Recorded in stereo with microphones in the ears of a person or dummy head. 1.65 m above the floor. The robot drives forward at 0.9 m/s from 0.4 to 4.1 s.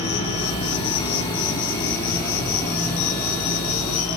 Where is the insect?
35° left (ahead or behind), 2 m; by 4.2 s 15° left (ahead or behind), 5 m.